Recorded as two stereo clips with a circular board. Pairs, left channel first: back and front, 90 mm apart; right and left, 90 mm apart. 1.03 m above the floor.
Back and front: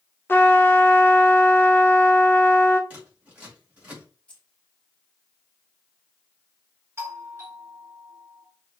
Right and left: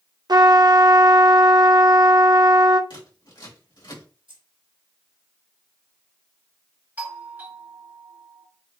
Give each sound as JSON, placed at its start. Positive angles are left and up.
{"t": 0.3, "sound": "a trumpet", "azimuth_deg": 120, "distance_m": 0.6}
{"t": 2.9, "sound": "scissors", "azimuth_deg": -70, "distance_m": 2.5}
{"t": 4.3, "sound": "keys jangling", "azimuth_deg": 105, "distance_m": 1.6}
{"t": 7.0, "sound": "a doorbell", "azimuth_deg": 40, "distance_m": 1.5}